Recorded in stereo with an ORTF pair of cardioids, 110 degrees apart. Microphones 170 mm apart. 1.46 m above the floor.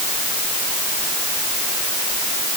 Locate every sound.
Only background noise.